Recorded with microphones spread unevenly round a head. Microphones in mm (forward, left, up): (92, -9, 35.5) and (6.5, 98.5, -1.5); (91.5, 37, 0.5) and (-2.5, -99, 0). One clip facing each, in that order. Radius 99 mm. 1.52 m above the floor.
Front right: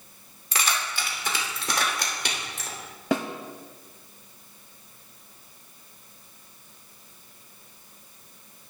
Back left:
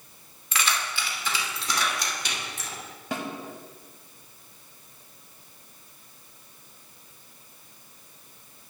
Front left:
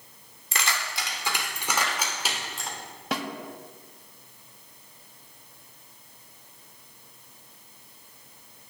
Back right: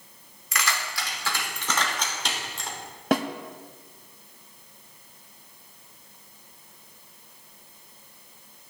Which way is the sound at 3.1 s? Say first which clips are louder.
Front right 7 dB, back right 8 dB; 85° right.